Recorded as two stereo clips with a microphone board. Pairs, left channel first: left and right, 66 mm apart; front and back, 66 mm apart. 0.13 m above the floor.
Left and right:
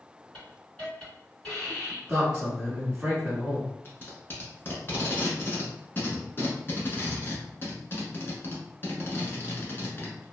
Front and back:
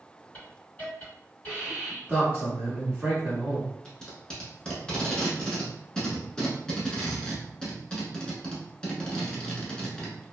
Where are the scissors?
No scissors in this recording.